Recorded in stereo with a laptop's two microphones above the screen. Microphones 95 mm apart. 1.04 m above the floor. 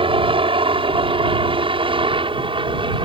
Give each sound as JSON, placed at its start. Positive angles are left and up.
{"t": 0.0, "sound": "a helicopter", "side_deg": -65}